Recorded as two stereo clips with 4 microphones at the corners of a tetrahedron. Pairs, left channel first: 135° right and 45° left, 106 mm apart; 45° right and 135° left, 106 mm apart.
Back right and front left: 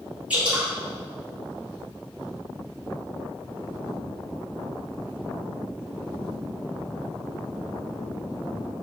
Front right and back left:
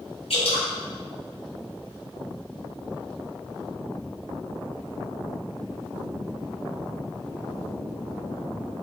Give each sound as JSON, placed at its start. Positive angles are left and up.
{"t": 0.3, "sound": "dripping", "azimuth_deg": -30, "distance_m": 3.5}